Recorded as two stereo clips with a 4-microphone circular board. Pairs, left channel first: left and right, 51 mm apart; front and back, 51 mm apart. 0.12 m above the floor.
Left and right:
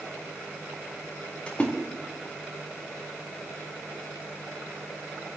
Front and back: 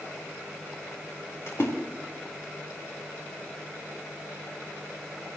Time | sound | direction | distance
1.5 | a splash | 25° left | 5 m